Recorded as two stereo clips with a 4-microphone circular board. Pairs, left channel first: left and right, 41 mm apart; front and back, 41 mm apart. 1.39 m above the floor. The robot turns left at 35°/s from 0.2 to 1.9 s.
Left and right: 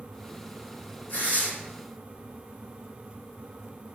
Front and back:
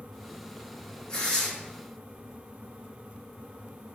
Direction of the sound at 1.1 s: 60° left.